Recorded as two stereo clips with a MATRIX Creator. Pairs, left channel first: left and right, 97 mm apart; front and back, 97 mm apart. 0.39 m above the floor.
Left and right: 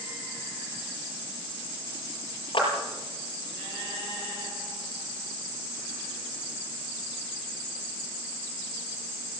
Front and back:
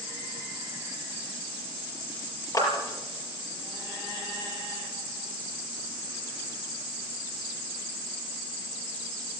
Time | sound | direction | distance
2.5 | a clap | 50° left | 6 m